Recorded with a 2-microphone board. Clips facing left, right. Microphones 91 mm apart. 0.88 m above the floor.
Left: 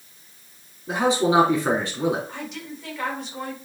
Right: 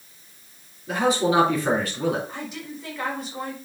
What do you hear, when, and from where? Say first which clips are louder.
0.9 s a man speaking: left 1 dB; 20° left (ahead or behind), 3 m
2.3 s a woman speaking: even; centre (ahead or behind), 4 m